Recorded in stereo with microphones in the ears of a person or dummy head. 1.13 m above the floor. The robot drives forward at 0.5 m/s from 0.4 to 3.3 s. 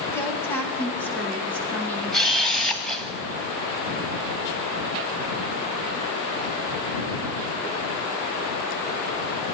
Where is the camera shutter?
Centre (ahead or behind), 1.1 m; by 3.1 s 5° left (ahead or behind), 0.6 m.